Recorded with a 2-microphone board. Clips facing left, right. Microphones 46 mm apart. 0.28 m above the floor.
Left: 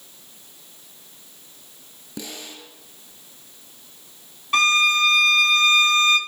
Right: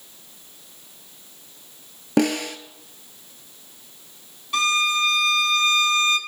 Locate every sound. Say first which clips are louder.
2.2 s a snare drum: right 16 dB; 70° right (ahead or behind), 0.8 m
4.5 s a violin: left 3 dB; 40° left (ahead or behind), 1.1 m